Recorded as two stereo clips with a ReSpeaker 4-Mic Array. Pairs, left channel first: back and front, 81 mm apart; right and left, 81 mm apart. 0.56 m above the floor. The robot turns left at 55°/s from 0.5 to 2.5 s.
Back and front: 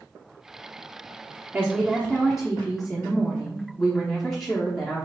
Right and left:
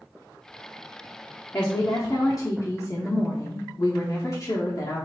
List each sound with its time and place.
1.5 s a woman speaking: 45° right, 1.0 m; by 5.0 s 100° right, 1.0 m